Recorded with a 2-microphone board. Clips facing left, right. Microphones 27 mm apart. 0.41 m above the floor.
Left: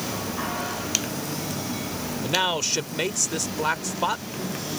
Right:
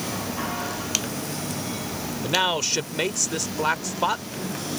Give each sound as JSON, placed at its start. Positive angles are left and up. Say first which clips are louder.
{"t": 2.2, "sound": "a man speaking", "louder": "right 1 dB", "side_deg": -5}